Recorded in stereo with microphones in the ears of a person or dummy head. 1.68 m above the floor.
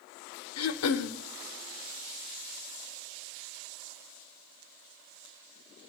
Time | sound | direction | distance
0.6 | throat clearing | 80° left | 0.6 m